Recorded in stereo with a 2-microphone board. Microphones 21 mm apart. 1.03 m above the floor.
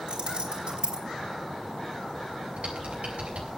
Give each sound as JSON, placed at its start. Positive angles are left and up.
{"t": 0.1, "sound": "keys jangling", "side_deg": -50, "distance_m": 5.0}
{"t": 2.6, "sound": "typing on a keyboard", "side_deg": -70, "distance_m": 7.0}